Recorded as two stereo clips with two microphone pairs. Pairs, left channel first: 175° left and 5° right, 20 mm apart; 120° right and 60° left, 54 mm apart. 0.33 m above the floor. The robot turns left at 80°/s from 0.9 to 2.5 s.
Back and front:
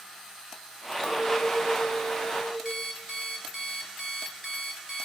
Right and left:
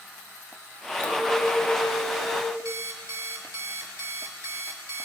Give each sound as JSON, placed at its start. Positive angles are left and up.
{"t": 1.0, "sound": "a clink", "azimuth_deg": -170, "distance_m": 1.7}
{"t": 2.6, "sound": "an alarm clock", "azimuth_deg": 75, "distance_m": 1.3}